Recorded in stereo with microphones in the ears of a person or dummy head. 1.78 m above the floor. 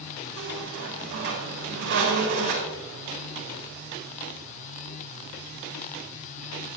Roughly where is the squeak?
Right.